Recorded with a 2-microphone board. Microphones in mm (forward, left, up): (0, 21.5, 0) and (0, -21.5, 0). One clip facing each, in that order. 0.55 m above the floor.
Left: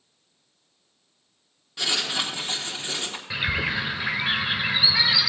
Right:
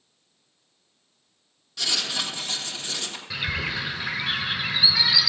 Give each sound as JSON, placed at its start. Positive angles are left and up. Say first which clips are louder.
{"t": 1.8, "sound": "writing", "louder": "left 2 dB", "side_deg": 25, "distance_m": 1.3}
{"t": 3.3, "sound": "a bird", "louder": "left 3 dB", "side_deg": 20, "distance_m": 1.4}